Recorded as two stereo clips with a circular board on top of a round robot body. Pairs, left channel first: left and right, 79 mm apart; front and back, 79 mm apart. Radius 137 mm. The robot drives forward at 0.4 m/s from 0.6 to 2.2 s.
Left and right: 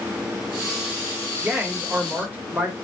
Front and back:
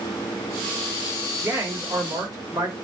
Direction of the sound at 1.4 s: 150° right.